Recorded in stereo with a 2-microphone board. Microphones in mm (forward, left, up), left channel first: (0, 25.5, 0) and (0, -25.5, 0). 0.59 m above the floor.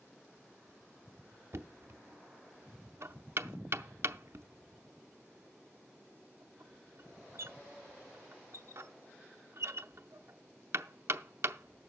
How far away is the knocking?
About 0.6 m.